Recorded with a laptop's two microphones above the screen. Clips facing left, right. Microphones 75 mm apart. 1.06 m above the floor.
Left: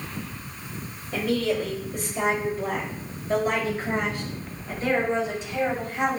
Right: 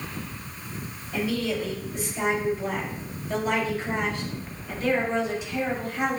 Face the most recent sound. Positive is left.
turn(degrees=30)  # may be behind; listen again after turning